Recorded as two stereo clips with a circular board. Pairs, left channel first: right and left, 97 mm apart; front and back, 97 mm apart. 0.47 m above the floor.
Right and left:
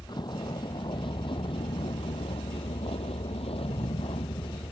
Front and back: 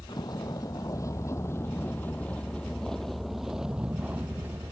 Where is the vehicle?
45° right; by 4.7 s 115° right.